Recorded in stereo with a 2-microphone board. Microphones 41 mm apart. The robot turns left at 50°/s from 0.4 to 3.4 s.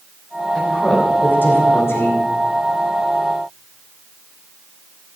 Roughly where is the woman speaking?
Centre.